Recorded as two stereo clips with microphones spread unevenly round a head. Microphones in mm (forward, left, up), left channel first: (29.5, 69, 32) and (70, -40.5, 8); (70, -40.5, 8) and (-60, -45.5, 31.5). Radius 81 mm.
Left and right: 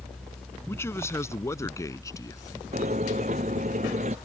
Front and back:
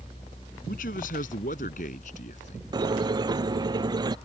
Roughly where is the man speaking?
Ahead left.